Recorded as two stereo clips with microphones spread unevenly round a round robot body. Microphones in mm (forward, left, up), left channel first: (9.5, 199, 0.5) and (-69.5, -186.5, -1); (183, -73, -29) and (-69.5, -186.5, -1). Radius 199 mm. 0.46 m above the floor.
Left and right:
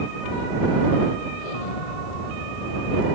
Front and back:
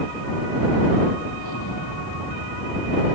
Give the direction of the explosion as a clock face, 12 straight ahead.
10 o'clock.